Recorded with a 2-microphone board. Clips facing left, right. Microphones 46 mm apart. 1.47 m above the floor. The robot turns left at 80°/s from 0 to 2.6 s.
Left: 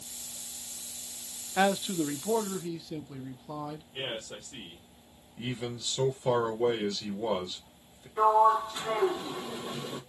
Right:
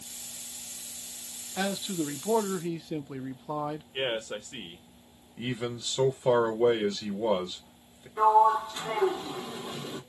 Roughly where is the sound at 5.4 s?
Right.